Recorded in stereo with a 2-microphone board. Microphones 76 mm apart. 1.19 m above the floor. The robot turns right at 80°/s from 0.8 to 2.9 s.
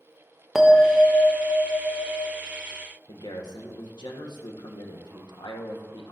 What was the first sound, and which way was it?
A bell, 5° right.